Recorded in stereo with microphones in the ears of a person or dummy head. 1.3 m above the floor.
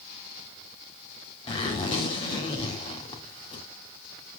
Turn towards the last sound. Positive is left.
turn(degrees=30)  # may be behind; listen again after turning